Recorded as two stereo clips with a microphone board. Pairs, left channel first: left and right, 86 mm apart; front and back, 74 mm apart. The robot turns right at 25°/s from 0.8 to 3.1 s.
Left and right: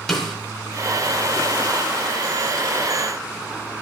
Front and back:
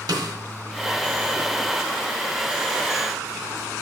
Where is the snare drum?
175° left, 1.4 m.